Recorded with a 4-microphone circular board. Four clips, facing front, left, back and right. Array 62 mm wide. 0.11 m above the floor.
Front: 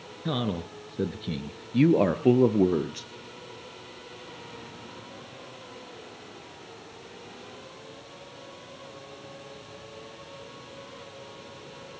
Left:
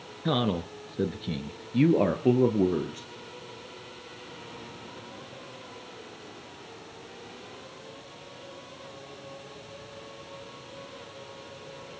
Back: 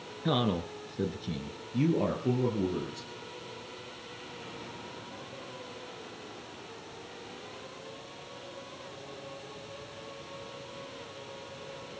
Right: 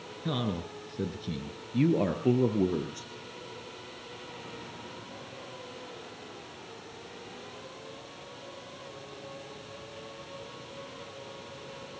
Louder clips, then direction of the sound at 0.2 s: Left 6 dB, back 1 dB; 110° left.